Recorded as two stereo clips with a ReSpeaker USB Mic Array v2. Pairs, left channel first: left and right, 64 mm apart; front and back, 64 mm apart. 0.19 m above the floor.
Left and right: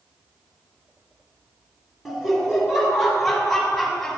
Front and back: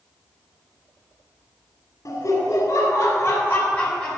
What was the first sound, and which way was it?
Laughter, 5° right.